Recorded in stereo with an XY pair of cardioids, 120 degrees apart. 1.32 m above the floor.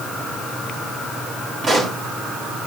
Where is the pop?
35° right, 4.5 m.